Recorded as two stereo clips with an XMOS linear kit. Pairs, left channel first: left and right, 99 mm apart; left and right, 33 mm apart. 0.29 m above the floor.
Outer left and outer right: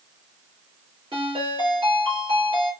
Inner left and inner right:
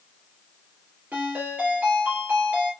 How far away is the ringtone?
About 2 m.